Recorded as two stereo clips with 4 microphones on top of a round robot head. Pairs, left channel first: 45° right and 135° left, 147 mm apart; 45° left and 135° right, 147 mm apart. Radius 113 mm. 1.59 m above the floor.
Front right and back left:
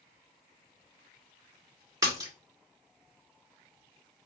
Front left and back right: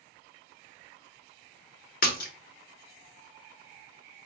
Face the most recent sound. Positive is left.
turn(degrees=70)